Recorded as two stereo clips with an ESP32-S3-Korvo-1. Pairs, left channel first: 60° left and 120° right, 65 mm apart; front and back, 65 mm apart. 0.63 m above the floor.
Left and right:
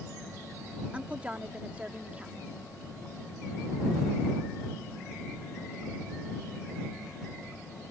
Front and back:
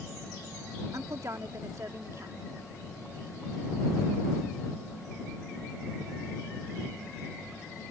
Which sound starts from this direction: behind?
A woman speaking, at 0.9 s.